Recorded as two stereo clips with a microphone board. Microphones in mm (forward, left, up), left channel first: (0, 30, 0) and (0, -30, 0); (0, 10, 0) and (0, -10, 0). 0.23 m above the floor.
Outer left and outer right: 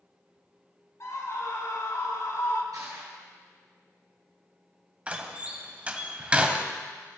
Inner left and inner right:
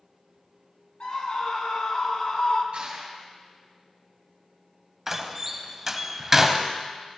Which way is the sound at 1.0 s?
55° left (ahead or behind).